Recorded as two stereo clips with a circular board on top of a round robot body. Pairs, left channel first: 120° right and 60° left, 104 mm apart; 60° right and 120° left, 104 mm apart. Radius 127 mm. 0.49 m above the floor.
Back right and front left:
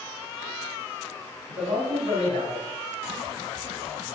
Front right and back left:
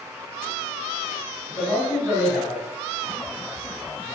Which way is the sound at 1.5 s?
55° left.